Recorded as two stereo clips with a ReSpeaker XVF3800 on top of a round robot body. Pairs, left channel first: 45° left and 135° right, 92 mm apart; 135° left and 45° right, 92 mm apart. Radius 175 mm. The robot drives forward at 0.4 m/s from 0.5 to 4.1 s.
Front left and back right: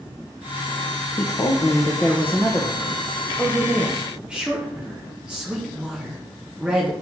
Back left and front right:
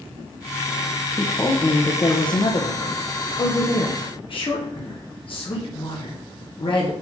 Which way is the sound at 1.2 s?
80° left.